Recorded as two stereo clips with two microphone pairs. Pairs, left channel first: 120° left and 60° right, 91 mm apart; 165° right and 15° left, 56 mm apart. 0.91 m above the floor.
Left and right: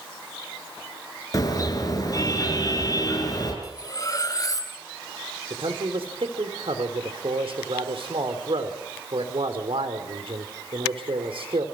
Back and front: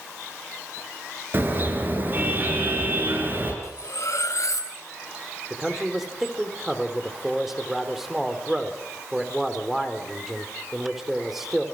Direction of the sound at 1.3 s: 70° left.